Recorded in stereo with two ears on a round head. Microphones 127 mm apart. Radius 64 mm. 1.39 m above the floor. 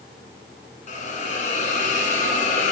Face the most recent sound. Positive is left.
turn(degrees=55)  # may be behind; listen again after turning